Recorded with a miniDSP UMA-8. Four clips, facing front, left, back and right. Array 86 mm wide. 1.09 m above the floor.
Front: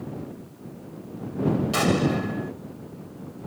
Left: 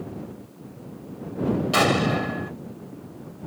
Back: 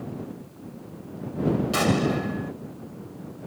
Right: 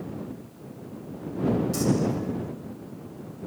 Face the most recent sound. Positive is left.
turn(degrees=90)